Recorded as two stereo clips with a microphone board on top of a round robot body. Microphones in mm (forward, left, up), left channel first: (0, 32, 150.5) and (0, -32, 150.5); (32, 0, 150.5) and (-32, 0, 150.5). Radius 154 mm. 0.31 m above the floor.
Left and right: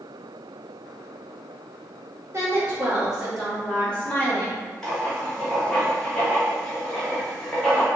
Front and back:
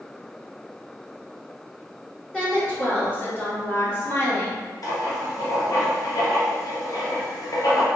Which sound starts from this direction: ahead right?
A woman speaking, at 2.3 s.